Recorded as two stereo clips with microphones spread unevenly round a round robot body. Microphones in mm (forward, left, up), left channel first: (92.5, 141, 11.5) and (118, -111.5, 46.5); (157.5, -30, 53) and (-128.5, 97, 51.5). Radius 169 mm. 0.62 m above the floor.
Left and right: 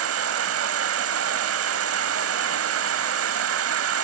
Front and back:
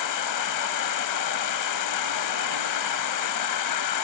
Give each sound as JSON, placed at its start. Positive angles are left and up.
{"t": 0.0, "sound": "an insect", "azimuth_deg": -60, "distance_m": 0.8}